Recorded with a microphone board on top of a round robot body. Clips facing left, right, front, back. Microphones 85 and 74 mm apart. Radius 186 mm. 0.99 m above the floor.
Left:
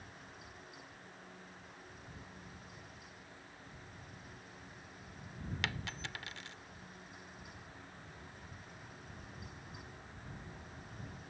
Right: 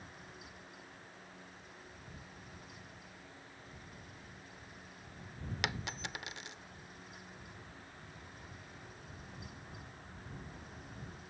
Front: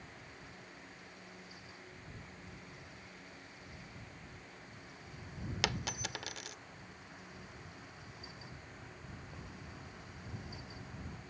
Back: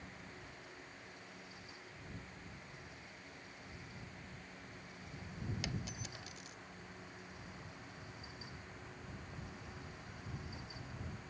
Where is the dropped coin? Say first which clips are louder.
Right 3 dB, front 6 dB; 20° right.